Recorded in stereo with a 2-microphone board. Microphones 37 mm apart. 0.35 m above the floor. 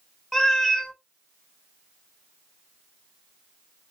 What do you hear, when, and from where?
0.3 s a cat meowing: 5° left (ahead or behind), 0.7 m